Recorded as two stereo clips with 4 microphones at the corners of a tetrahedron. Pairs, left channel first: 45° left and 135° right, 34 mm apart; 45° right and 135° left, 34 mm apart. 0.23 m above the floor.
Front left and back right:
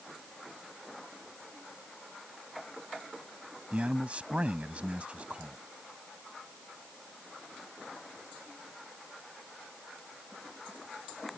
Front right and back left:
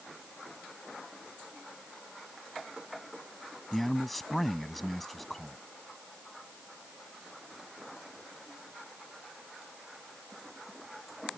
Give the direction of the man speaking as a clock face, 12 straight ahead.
4 o'clock.